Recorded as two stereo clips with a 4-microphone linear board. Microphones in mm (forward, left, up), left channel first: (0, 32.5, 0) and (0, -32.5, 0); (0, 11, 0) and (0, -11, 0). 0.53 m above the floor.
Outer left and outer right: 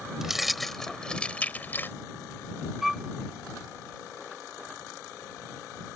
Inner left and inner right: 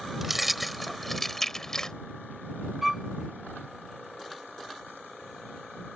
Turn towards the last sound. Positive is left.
turn(degrees=-5)  # may be behind; listen again after turning